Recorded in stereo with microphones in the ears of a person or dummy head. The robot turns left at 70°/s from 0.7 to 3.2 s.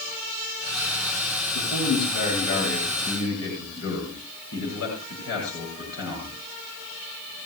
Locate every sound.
1.5 s a man speaking: 175° right, 9 m; by 6.4 s 70° left, 9 m